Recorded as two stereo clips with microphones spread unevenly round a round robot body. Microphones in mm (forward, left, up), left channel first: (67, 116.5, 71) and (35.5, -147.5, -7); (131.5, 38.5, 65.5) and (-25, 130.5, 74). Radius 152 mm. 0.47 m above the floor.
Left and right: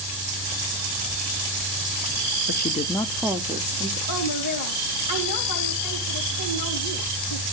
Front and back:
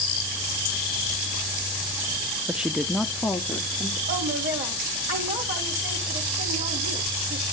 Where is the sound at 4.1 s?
120° left, 2.5 m.